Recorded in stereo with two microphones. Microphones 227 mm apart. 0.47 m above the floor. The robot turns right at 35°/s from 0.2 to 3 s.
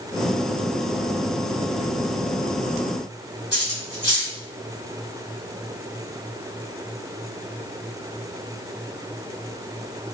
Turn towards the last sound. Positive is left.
turn(degrees=-55)  # may be behind; listen again after turning